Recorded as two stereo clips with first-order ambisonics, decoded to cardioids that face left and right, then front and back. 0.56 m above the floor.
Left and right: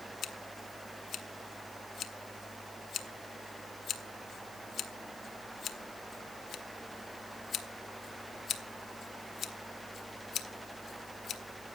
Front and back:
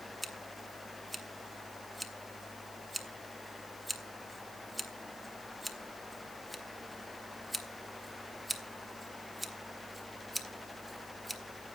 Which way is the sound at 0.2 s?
95° left.